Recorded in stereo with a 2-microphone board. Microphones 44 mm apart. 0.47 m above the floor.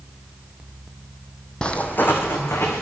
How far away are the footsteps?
About 0.6 m.